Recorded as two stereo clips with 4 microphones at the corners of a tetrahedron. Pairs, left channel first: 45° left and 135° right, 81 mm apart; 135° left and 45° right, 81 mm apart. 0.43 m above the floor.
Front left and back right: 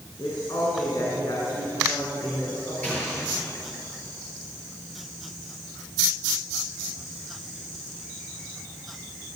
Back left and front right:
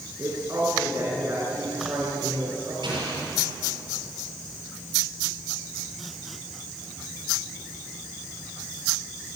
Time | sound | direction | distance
0.2 | a woman speaking | 10° left | 5 m
2.8 | an explosion | 25° right | 7 m